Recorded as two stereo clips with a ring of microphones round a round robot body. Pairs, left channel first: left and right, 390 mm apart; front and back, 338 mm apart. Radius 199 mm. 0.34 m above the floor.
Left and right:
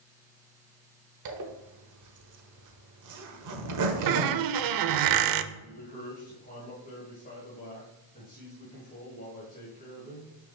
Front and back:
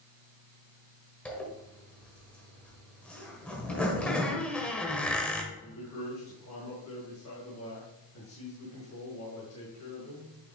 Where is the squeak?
85° right, 0.6 m.